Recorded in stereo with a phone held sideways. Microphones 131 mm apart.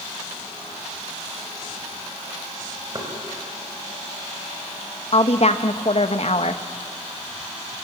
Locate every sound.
3.0 s knocking: 35° right (ahead or behind), 4.5 m
5.1 s a woman speaking: 50° left (ahead or behind), 1.3 m